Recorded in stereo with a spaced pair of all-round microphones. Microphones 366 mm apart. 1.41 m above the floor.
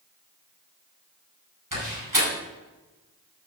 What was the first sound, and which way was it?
A door slam, 70° right (ahead or behind).